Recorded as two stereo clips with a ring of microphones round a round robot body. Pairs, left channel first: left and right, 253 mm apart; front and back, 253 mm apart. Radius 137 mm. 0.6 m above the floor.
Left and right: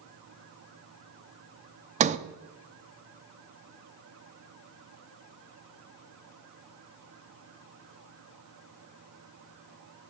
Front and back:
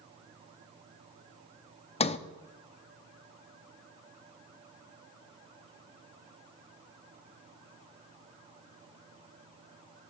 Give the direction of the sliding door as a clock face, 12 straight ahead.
2 o'clock.